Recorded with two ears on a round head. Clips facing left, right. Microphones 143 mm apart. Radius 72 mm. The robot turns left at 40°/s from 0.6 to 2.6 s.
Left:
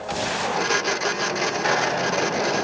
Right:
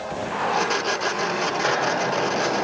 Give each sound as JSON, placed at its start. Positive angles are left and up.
{"t": 1.6, "sound": "a hiss", "azimuth_deg": -105, "distance_m": 4.5}